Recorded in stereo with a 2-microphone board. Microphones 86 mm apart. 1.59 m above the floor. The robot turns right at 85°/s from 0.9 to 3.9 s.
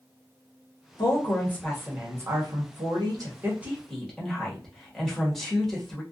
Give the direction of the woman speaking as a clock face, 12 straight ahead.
8 o'clock.